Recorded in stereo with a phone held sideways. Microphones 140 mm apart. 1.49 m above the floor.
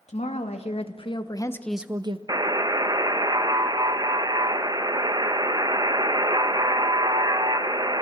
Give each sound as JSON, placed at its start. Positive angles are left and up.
{"t": 0.1, "sound": "a woman speaking", "side_deg": 55, "distance_m": 2.5}
{"t": 2.3, "sound": "a buzzer", "side_deg": -30, "distance_m": 0.8}